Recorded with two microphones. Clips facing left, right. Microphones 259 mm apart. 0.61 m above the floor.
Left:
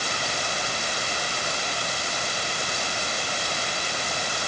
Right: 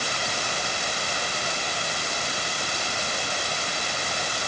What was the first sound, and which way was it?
Only background noise.